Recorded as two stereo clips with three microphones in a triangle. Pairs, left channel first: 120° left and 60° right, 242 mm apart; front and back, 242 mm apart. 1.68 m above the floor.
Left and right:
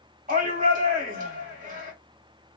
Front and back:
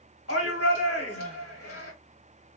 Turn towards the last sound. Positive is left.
turn(degrees=-5)